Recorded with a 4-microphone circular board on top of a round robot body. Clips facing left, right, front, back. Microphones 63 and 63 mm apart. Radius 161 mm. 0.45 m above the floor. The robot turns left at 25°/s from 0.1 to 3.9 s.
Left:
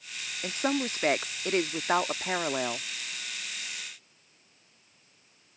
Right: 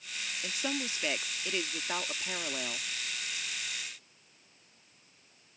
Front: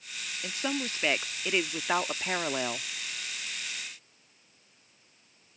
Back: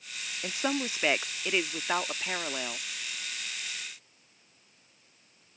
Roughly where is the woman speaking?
Behind left.